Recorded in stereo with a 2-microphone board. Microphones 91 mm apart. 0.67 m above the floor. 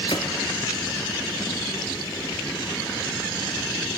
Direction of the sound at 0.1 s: 60° left (ahead or behind).